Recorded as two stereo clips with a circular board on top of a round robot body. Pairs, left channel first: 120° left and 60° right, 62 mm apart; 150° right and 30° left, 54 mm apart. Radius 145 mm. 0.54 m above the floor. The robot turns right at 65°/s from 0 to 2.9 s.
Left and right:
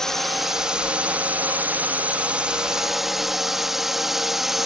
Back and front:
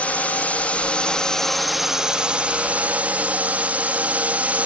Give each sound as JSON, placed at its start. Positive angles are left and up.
{"t": 0.0, "sound": "a drone", "azimuth_deg": -170}